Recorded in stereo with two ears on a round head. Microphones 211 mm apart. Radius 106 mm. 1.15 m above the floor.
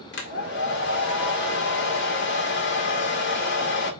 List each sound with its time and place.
0.1 s a hair dryer: 50° left (ahead or behind), 1.9 m